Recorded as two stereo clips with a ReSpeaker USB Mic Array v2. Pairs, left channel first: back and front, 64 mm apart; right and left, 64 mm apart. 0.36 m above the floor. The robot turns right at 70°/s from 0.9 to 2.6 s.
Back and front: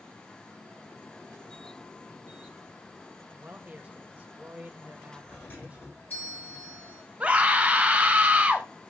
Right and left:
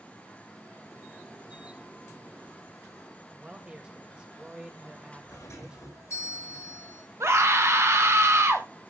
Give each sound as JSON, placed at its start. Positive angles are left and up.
{"t": 3.3, "sound": "a man speaking", "azimuth_deg": 35, "distance_m": 1.6}
{"t": 5.3, "sound": "a doorbell", "azimuth_deg": -125, "distance_m": 6.0}
{"t": 7.2, "sound": "a scream", "azimuth_deg": 65, "distance_m": 1.6}